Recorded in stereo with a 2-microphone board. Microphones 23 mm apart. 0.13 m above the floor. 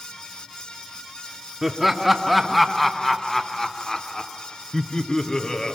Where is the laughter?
10° right (ahead or behind), 1.8 m; by 5.8 s 30° left (ahead or behind), 2.5 m.